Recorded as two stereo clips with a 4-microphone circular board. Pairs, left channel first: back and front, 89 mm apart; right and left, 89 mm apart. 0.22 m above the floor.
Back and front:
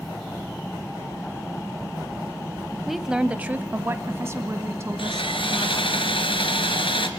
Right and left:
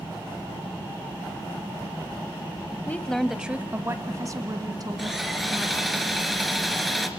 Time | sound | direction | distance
2.9 | a woman speaking | 90° right | 1.0 m
5.0 | sawing | straight behind | 1.8 m